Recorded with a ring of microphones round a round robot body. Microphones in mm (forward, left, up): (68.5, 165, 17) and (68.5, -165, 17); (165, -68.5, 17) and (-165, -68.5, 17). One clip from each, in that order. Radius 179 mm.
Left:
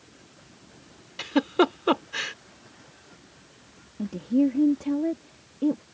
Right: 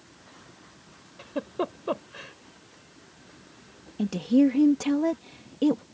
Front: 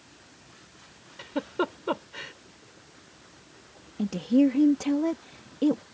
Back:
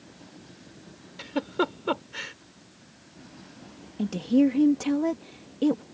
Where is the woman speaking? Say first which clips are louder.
Right 2 dB, even; 100° right.